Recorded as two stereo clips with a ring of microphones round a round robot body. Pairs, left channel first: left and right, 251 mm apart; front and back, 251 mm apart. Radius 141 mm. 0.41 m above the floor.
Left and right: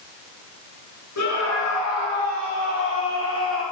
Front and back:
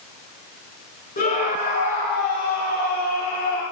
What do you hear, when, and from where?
1.2 s a scream: 55° left, 7 m; by 3.6 s 50° left, 9 m